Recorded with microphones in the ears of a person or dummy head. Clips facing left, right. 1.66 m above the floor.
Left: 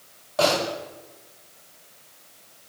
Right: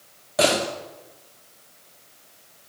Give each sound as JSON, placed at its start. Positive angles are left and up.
{"t": 0.4, "sound": "a door slam", "side_deg": -15, "distance_m": 2.5}